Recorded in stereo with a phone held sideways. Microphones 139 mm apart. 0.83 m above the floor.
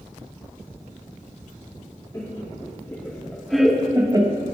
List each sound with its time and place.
2.1 s laughter: 30° left (ahead or behind), 2.5 m; by 4.4 s 40° right (ahead or behind), 1.2 m